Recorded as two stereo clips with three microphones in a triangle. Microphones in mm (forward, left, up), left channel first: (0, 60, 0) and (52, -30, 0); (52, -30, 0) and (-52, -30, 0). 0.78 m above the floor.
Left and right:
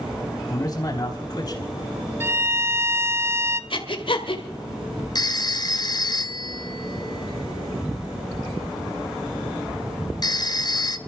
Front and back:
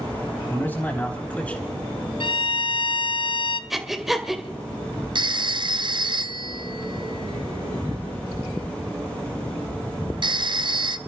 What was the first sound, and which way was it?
A man speaking, 65° left.